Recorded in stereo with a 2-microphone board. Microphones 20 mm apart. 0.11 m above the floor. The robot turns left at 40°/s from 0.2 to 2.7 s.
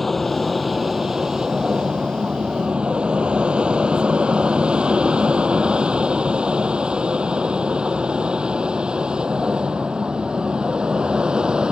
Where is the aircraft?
10° left (ahead or behind); by 11.7 s 55° right (ahead or behind).